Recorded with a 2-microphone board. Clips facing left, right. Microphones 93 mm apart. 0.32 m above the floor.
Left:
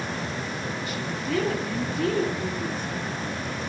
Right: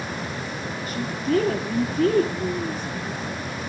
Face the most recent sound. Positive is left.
turn(degrees=-40)  # may be behind; listen again after turning